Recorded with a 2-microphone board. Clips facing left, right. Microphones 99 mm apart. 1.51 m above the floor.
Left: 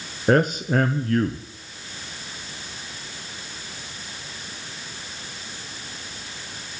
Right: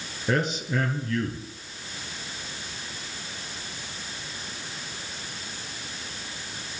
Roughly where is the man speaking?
Left.